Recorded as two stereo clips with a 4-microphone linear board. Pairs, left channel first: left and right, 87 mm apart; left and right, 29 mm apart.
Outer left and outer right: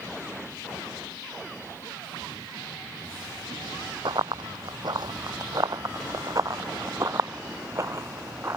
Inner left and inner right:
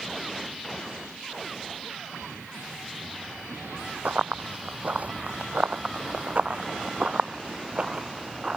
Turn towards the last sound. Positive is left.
turn(degrees=-30)  # may be behind; listen again after turning